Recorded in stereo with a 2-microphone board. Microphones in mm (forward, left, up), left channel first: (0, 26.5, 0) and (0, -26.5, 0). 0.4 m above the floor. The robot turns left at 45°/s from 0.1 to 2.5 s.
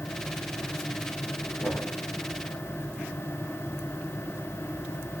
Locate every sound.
1.6 s knocking: 55° left (ahead or behind), 5.5 m; by 1.9 s 45° left (ahead or behind), 5.5 m